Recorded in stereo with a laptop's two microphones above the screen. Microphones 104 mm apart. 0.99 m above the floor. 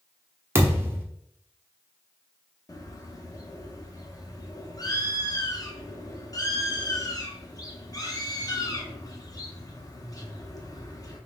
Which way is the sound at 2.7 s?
35° left (ahead or behind).